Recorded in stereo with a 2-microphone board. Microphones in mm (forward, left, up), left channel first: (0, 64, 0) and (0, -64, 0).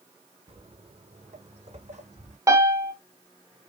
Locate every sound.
0.5 s footsteps: 50° right (ahead or behind), 1.4 m; by 2.4 s 65° right (ahead or behind), 2 m
2.5 s a piano: 25° right (ahead or behind), 0.8 m